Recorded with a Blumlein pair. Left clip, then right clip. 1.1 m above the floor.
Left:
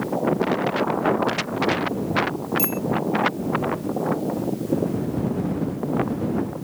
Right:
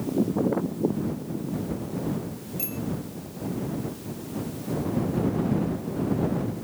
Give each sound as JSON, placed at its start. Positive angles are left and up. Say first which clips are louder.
{"t": 2.6, "sound": "a bicycle bell", "louder": "left 9 dB", "azimuth_deg": 65}